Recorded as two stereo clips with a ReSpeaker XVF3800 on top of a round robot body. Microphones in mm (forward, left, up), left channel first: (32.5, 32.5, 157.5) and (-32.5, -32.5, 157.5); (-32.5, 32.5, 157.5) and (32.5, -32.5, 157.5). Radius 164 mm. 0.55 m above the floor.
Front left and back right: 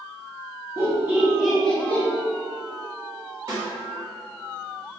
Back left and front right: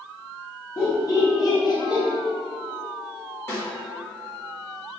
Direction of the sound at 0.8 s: Straight behind.